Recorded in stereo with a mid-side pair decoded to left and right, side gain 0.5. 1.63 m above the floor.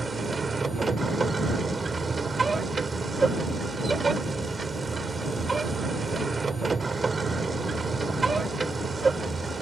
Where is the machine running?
25° right.